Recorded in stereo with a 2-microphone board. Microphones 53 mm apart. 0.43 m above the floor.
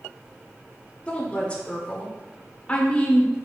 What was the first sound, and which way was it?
A woman speaking, 25° left (ahead or behind).